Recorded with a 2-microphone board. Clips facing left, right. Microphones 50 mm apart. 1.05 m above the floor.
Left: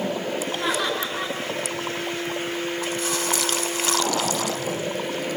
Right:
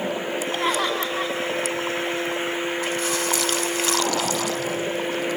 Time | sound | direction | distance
0.6 | laughter | 45° right (ahead or behind) | 7.5 m